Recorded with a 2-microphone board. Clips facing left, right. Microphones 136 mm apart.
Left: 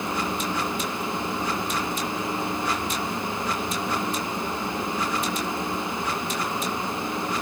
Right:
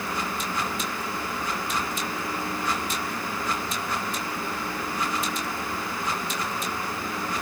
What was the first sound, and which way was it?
Only background noise.